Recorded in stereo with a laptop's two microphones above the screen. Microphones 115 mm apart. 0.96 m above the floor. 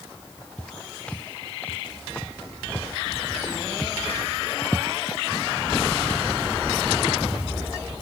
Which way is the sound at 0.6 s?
10° left (ahead or behind).